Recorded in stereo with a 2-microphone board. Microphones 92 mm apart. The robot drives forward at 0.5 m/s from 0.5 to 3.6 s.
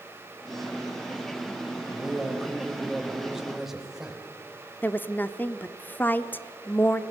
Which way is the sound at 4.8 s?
20° left (ahead or behind).